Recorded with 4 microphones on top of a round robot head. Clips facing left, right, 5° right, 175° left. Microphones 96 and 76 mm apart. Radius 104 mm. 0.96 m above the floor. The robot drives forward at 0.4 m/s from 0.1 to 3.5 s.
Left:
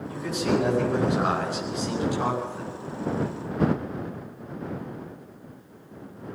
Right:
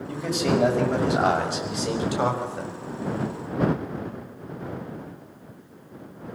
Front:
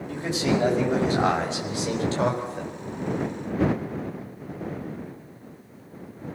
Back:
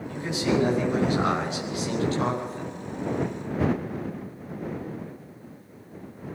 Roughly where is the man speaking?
Ahead right.